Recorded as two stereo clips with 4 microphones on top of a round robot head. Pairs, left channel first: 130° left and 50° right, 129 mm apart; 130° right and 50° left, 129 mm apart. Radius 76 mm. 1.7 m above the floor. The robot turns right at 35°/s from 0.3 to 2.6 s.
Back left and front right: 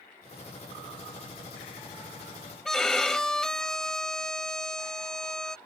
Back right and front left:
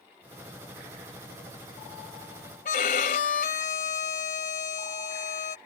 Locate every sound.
2.6 s a violin: 145° right